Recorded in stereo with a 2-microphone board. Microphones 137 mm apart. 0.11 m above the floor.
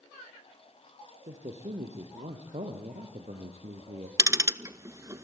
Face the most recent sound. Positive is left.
turn(degrees=-25)  # may be behind; listen again after turning